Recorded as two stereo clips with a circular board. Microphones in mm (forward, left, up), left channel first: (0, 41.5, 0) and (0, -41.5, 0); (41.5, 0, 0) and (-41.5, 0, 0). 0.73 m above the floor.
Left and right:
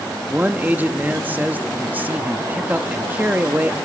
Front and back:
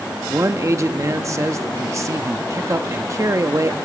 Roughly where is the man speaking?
Behind right.